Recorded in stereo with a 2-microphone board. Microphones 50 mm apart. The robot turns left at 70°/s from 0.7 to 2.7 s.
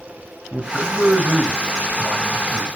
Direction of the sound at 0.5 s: 15° right (ahead or behind).